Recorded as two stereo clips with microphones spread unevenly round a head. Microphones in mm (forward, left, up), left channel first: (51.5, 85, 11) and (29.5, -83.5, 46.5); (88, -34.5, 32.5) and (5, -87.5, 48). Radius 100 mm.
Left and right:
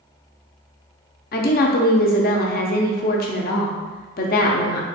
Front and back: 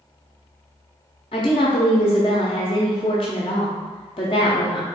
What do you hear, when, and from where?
1.3 s a woman speaking: 70° left, 0.5 m